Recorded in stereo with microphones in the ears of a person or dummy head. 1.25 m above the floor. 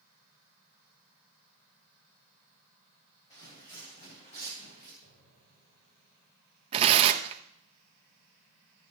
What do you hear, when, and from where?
3.3 s footsteps: 40° left (ahead or behind), 2.5 m; by 4.9 s 50° left (ahead or behind), 5 m
5.0 s an explosion: 60° left (ahead or behind), 3.5 m
6.7 s tearing paper: 30° right (ahead or behind), 0.5 m